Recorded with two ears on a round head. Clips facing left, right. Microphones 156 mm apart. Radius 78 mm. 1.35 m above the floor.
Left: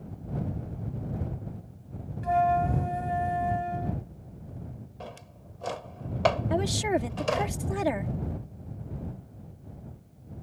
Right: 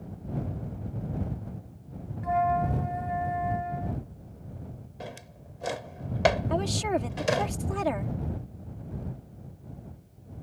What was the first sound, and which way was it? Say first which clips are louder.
A flute: left 2 dB; 35° left (ahead or behind).